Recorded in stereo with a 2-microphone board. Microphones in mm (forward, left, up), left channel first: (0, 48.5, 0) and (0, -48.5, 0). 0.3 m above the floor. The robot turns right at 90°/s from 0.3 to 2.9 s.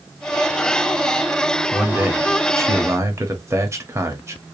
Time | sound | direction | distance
1.7 | a man speaking | 170° right | 1.2 m